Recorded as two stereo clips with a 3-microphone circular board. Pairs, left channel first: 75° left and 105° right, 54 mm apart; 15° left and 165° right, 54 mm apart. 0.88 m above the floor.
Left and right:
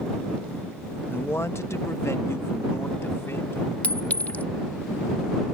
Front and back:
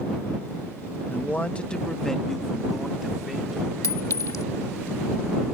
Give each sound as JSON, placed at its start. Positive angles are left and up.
{"t": 1.1, "sound": "a man speaking", "azimuth_deg": 50}
{"t": 3.8, "sound": "a clink", "azimuth_deg": 15}